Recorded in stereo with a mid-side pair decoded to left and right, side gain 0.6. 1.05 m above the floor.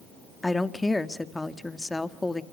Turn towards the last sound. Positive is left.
turn(degrees=15)